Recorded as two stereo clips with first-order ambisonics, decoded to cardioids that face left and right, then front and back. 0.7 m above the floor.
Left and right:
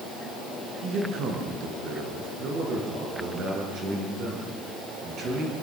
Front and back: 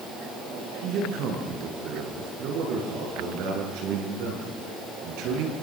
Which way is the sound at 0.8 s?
140° right.